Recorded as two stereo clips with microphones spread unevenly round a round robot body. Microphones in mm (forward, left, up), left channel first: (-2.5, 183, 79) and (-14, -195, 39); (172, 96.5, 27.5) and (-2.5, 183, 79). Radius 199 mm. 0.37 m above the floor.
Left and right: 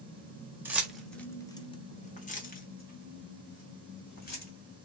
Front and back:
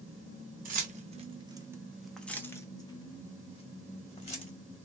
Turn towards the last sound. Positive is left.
turn(degrees=20)